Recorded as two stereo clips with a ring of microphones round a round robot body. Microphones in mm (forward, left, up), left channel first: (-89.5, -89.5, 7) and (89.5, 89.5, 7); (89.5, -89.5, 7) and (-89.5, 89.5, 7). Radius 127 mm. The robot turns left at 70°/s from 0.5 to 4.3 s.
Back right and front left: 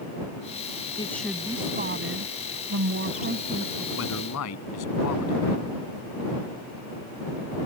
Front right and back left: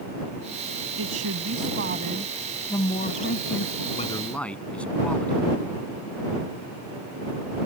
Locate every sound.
1.0 s a woman speaking: 155° left; by 3.9 s 45° right
4.0 s a man speaking: 105° right; by 5.4 s 130° right